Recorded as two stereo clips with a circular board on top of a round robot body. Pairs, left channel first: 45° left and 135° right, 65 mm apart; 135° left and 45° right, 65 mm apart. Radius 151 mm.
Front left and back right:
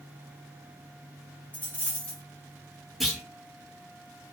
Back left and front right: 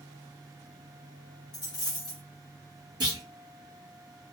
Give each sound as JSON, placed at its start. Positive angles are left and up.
{"t": 1.5, "sound": "a dropped coin", "azimuth_deg": 110, "distance_m": 0.7}
{"t": 3.0, "sound": "a clunk", "azimuth_deg": -45, "distance_m": 1.0}